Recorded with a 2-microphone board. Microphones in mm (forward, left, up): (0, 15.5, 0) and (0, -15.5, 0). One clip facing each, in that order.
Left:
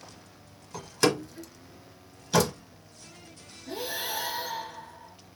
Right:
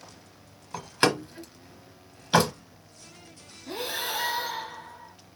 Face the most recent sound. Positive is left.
turn(degrees=-65)  # may be behind; listen again after turning